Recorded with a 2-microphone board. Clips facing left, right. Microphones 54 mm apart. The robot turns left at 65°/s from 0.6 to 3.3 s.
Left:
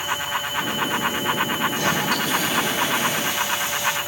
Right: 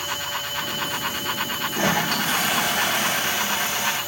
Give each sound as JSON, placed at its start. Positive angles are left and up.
{"t": 1.7, "sound": "a toilet flushing", "azimuth_deg": -30, "distance_m": 4.0}